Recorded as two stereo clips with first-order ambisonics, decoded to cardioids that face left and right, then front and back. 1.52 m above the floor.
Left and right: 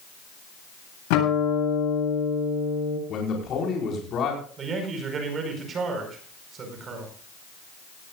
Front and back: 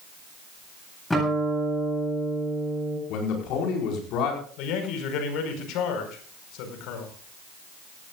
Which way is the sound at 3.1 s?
35° left.